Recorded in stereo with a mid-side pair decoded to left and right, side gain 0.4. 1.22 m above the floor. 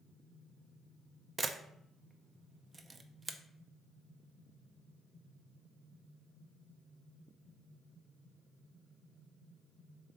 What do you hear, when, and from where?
1.4 s a camera shutter: 35° right, 0.6 m